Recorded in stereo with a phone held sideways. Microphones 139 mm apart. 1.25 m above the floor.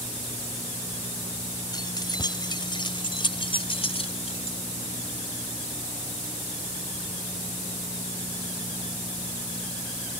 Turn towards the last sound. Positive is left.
turn(degrees=55)  # may be behind; listen again after turning